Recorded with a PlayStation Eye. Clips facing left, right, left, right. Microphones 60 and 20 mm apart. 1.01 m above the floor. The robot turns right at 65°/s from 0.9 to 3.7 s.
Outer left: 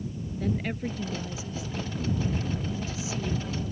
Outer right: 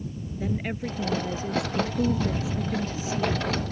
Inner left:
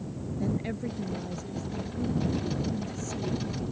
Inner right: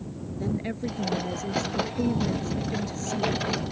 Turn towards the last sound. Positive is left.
turn(degrees=10)